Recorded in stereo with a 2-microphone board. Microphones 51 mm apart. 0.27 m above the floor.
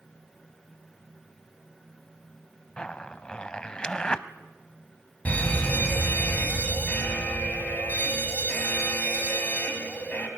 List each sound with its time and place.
2.8 s a zipper: 20° left (ahead or behind), 0.8 m
5.2 s a fire alarm: 30° left (ahead or behind), 3 m